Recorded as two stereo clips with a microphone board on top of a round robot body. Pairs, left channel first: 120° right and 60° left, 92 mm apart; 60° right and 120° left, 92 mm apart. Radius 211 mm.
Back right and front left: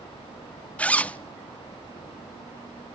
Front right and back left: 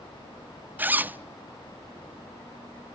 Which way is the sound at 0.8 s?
175° left.